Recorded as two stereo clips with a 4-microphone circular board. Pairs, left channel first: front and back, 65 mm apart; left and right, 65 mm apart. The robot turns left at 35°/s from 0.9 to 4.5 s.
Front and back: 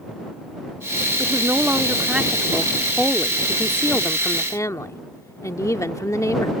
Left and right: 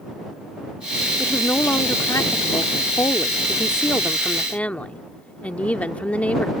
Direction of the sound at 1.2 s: 140° left.